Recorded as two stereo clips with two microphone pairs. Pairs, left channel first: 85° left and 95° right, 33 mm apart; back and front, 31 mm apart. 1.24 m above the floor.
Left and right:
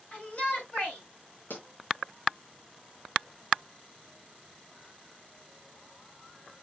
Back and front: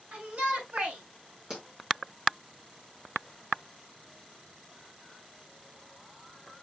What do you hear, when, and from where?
0.1 s a shout: 30° left, 6.5 m
1.5 s a pop: 65° left, 5 m